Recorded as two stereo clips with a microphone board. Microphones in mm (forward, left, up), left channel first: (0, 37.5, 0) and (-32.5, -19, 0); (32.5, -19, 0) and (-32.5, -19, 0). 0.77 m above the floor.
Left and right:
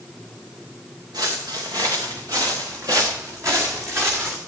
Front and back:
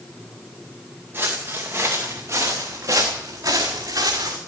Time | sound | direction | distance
1.1 | footsteps | 125° right | 3.5 m